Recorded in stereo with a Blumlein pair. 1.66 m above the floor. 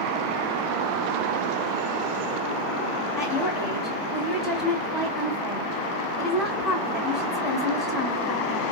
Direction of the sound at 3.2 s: 10° left.